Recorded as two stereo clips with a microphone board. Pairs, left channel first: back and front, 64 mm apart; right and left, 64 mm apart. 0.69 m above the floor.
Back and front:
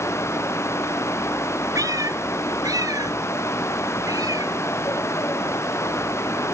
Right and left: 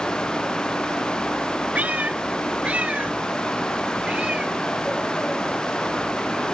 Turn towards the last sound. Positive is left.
turn(degrees=15)